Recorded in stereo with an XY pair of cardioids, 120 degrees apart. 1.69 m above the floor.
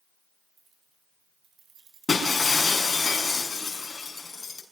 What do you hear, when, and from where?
0.6 s keys jangling: 40° right, 4 m; by 3.0 s 65° right, 5 m
2.1 s breaking glass: 20° left, 5.5 m